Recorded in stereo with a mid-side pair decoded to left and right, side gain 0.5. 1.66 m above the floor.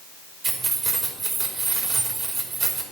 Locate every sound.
0.4 s keys jangling: 45° right, 3 m